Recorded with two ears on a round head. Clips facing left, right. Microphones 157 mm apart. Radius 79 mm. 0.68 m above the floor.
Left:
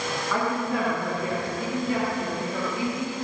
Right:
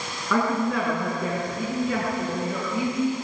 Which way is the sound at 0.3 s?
65° right (ahead or behind).